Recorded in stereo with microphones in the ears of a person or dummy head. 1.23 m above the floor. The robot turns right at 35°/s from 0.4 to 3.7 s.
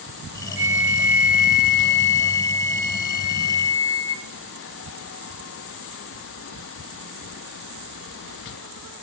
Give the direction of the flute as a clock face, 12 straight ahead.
11 o'clock.